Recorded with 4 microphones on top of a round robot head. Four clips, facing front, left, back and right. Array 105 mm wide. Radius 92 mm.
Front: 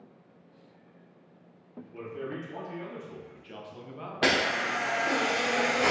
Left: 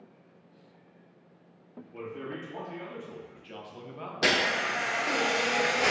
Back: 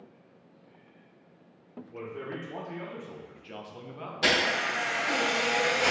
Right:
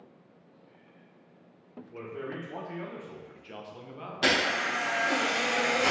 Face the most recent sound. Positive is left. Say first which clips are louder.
# even, front 1 dB
turn(degrees=20)